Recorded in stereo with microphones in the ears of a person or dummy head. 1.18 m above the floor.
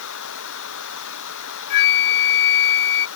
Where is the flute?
55° left (ahead or behind).